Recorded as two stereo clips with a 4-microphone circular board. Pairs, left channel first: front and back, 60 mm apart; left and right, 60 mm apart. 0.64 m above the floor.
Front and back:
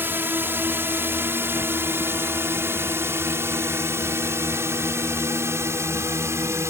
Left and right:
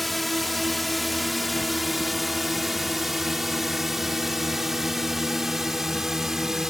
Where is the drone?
175° left; by 6.7 s 170° right.